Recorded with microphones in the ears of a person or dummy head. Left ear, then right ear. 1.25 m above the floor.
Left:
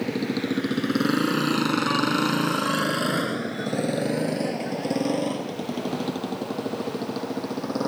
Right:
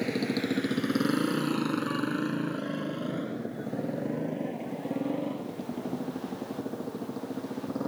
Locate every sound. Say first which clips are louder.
0.0 s a motorcycle: left 3 dB; 20° right (ahead or behind); by 7.9 s 70° left (ahead or behind)